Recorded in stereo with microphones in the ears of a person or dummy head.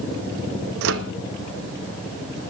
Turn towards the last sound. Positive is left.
turn(degrees=-70)  # may be behind; listen again after turning